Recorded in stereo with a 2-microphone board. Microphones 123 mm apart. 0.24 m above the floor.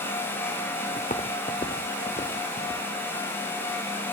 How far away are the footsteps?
About 1.3 m.